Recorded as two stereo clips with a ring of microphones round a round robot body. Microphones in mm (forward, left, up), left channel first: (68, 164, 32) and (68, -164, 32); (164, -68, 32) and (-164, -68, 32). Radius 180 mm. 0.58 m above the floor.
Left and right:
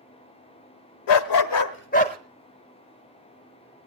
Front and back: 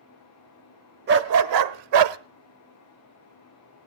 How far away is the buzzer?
No buzzer in this recording.